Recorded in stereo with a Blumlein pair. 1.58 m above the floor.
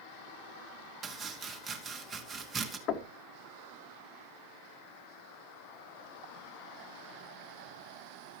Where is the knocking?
30° left, 1.4 m.